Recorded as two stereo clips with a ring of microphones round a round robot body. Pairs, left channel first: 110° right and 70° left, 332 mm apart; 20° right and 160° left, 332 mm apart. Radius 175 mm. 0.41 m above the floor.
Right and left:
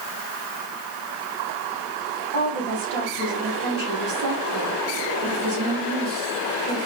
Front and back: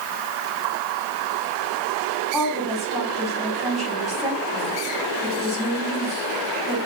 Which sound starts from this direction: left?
A woman speaking, at 2.3 s.